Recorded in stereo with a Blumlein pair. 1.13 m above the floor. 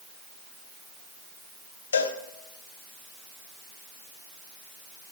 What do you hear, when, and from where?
1.9 s a cowbell: 70° left, 1.0 m